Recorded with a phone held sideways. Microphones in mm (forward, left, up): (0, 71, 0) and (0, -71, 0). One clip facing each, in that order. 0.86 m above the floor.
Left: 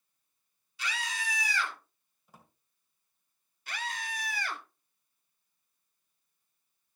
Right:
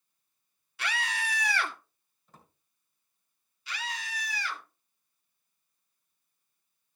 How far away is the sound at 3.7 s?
About 1.7 m.